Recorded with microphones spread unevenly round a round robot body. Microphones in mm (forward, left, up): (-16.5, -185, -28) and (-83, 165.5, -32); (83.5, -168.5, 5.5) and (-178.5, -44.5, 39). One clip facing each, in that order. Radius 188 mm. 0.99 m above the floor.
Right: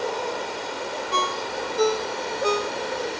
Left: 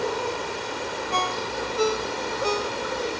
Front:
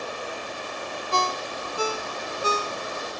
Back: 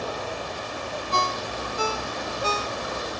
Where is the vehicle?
170° left; by 3.2 s straight behind.